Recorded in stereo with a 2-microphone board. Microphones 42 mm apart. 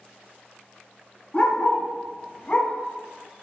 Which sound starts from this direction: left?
A dog barking, at 1.3 s.